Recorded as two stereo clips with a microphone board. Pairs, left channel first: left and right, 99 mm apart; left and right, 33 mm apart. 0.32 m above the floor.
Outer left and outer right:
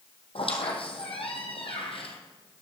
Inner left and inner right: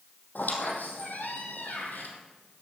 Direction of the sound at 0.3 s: 65° left (ahead or behind).